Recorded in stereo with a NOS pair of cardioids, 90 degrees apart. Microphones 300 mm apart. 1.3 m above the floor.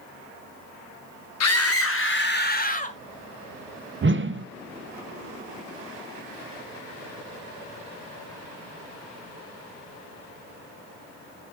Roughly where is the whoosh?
Ahead right.